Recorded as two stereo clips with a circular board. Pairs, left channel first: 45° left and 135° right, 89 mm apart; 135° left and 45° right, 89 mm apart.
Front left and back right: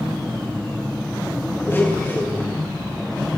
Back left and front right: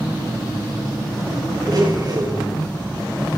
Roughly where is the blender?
Ahead.